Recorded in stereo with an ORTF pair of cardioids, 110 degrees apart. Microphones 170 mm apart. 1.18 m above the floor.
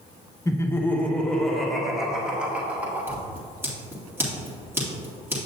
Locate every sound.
0.5 s laughter: 20° left, 1.1 m; by 3.2 s 10° right, 2.5 m
3.1 s scissors: 15° right, 2 m